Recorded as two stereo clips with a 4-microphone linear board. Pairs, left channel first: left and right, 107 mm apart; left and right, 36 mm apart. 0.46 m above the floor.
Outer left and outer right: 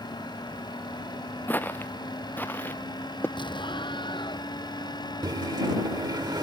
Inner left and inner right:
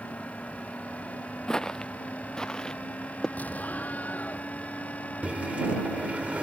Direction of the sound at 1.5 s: 20° left (ahead or behind).